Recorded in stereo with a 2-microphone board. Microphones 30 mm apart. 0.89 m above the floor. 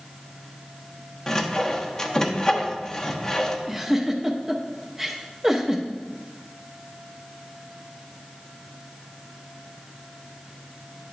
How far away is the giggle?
About 0.8 m.